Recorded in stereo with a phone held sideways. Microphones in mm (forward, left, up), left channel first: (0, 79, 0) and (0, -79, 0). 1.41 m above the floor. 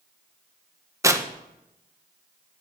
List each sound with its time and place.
1.0 s tearing paper: 20° right (ahead or behind), 1.1 m